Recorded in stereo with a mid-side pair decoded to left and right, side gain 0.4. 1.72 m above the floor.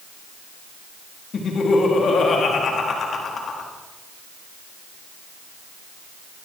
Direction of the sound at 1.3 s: 55° left.